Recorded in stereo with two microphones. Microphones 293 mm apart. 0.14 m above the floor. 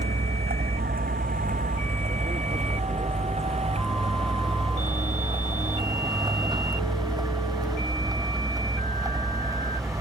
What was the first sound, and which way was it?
A vehicle, 35° right (ahead or behind).